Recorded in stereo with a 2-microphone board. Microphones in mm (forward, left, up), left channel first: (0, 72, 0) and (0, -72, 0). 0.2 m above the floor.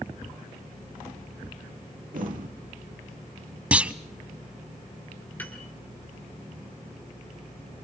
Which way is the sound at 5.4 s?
10° left (ahead or behind).